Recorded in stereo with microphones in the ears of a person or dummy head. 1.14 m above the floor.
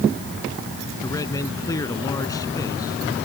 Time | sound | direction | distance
1.0 | a man speaking | 25° left (ahead or behind) | ?